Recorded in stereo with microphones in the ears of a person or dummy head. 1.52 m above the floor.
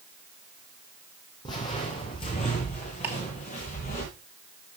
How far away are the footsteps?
About 3 m.